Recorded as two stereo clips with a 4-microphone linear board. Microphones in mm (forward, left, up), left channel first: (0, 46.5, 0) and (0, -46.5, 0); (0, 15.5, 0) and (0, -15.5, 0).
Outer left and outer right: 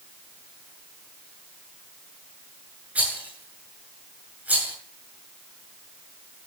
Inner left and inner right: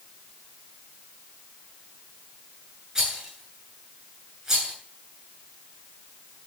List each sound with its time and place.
3.0 s a rattle: 15° right (ahead or behind), 8 m